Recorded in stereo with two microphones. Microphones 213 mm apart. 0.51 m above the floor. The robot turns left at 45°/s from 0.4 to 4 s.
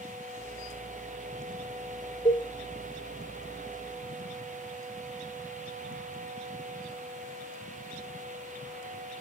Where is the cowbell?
25° left (ahead or behind), 1.6 m; by 2.5 s 30° left (ahead or behind), 1.6 m.